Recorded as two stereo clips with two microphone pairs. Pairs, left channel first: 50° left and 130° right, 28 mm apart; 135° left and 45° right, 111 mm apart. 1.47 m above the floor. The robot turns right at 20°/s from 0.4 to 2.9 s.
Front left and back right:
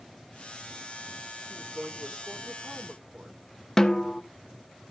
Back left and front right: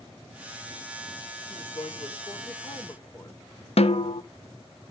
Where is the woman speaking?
160° left, 2.5 m; by 3.4 s 170° right, 2.5 m.